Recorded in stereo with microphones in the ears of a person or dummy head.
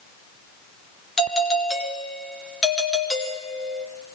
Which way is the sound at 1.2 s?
5° left (ahead or behind).